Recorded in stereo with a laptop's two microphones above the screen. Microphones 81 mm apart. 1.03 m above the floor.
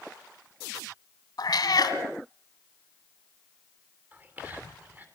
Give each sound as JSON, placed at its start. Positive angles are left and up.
{"t": 1.4, "sound": "a cat meowing", "side_deg": 60, "distance_m": 1.8}
{"t": 4.1, "sound": "whispering", "side_deg": -25, "distance_m": 3.0}